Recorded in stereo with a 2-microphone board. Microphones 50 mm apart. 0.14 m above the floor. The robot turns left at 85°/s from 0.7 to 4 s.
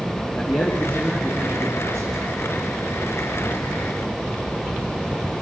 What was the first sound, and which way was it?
A man speaking, 40° left.